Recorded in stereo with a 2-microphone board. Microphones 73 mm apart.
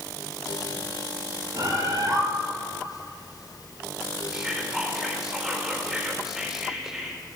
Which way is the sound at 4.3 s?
10° right (ahead or behind).